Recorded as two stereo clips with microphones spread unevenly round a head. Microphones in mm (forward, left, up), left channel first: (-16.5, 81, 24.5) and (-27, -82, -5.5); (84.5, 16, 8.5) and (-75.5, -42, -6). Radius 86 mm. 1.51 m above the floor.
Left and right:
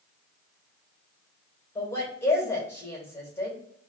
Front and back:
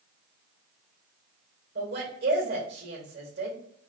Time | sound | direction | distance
1.8 | a woman speaking | 160° left | 2 m